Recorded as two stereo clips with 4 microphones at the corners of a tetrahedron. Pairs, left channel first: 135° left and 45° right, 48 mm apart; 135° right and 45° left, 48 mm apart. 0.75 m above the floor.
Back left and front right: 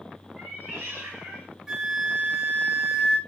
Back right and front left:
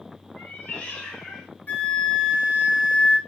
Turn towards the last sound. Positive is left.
turn(degrees=-115)